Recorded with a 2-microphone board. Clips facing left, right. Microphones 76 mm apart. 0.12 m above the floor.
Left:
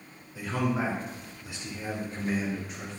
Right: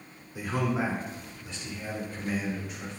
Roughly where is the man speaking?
Centre.